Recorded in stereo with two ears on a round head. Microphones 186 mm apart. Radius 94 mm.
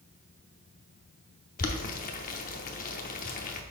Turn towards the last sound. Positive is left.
turn(degrees=40)  # may be behind; listen again after turning